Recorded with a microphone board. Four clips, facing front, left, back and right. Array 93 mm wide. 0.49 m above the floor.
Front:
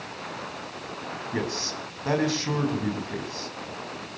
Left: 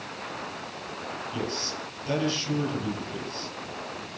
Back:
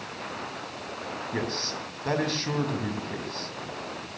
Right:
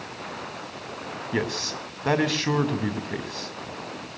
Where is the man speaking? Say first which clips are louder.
Right 7 dB, front 2 dB; 85° right, 4 m.